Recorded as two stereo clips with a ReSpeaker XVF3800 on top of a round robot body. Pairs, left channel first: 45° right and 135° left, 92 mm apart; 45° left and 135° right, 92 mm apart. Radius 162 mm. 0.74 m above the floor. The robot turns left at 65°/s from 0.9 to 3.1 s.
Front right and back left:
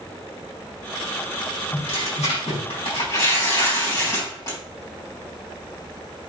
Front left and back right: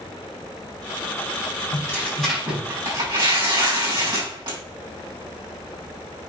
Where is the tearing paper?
10° right, 3.5 m; by 4.6 s 100° right, 3.5 m.